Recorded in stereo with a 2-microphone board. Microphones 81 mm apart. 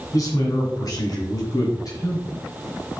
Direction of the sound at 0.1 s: 45° left (ahead or behind).